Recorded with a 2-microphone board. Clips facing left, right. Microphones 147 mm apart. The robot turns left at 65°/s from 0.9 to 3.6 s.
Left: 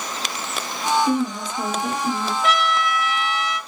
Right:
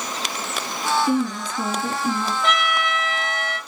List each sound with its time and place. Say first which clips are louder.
1.1 s a woman speaking: even; 55° left, 1.4 m; by 2.3 s 25° right, 1.4 m
2.4 s a trumpet: left 4 dB; 5° left, 1.0 m; by 3.6 s 70° right, 1.0 m